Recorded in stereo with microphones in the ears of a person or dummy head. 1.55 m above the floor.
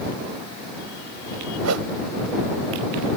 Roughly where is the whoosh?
Right.